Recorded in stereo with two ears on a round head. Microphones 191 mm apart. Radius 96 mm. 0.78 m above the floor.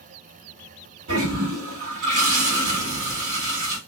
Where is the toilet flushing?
65° right (ahead or behind), 1.6 m.